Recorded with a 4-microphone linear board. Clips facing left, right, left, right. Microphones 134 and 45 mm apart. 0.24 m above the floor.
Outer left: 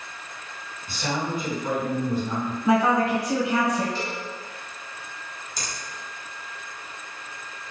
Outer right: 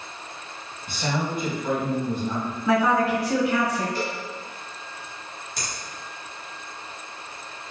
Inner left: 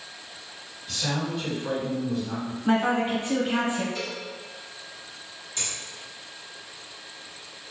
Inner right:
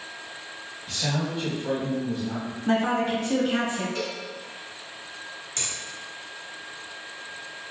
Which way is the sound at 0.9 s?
20° right (ahead or behind).